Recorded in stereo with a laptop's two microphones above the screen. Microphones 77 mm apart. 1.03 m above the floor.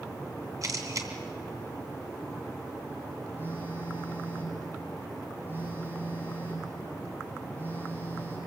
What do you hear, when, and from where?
0.6 s a camera shutter: 50° right (ahead or behind), 2.5 m
3.4 s a phone buzzing: 25° right (ahead or behind), 9.5 m